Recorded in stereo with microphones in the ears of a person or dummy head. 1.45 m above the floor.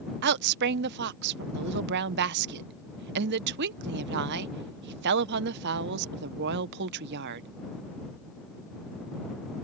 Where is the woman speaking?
60° right (ahead or behind).